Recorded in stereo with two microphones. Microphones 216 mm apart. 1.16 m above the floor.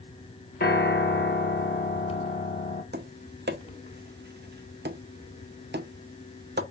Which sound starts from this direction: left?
A piano, at 0.6 s.